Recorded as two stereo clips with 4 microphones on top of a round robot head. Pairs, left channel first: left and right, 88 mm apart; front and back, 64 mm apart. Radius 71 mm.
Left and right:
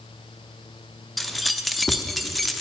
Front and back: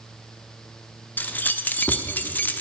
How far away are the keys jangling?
About 0.6 m.